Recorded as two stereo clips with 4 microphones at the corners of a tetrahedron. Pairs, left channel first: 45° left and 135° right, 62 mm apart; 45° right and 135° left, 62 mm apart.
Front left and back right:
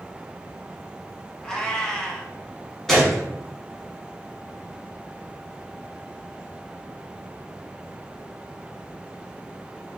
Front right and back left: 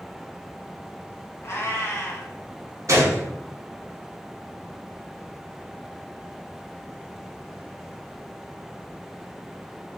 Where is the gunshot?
130° left, 0.9 m.